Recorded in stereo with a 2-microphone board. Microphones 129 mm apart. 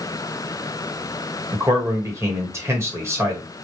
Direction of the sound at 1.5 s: 20° right (ahead or behind).